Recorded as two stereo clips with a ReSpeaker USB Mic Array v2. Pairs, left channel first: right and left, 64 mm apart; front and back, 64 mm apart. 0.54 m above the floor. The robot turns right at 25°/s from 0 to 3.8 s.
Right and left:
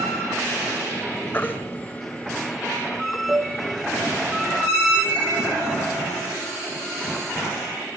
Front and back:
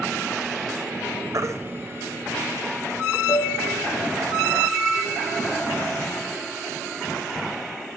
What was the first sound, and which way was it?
A baby crying, 150° right.